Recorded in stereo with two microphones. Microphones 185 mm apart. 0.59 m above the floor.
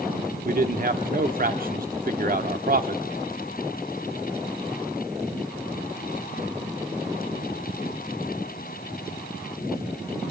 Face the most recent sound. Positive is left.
turn(degrees=-50)  # may be behind; listen again after turning